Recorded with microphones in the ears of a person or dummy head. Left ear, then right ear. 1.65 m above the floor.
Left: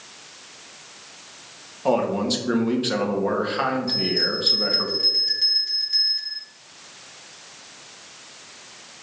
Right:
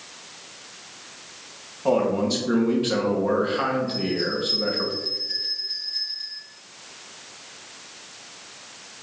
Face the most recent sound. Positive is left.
turn(degrees=65)  # may be behind; listen again after turning